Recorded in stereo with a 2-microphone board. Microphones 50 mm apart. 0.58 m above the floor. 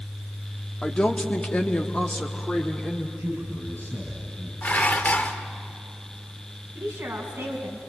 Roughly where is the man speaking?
Right.